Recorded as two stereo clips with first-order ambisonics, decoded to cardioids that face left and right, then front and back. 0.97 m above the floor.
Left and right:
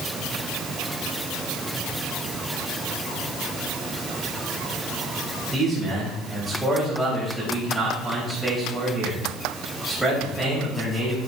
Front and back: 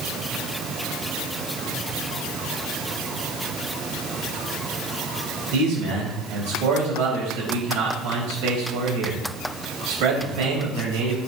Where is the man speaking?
Straight behind, 4.5 m.